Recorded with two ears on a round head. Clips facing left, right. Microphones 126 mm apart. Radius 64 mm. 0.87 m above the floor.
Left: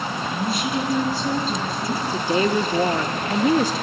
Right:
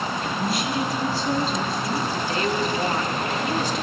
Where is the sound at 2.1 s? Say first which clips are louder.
Left 4 dB; 70° left (ahead or behind), 1.4 m.